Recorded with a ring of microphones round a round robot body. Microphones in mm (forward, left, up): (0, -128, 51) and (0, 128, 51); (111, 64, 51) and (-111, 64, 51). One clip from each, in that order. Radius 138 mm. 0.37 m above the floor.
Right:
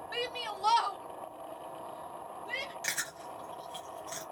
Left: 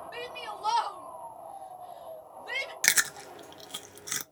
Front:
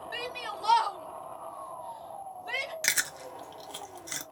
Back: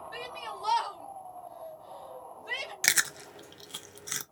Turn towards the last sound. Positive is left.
turn(degrees=115)